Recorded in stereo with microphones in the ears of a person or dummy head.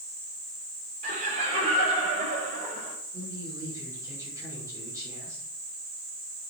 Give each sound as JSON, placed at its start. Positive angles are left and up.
{"t": 1.0, "sound": "laughter", "side_deg": -40, "distance_m": 5.0}
{"t": 3.1, "sound": "a man speaking", "side_deg": -15, "distance_m": 6.0}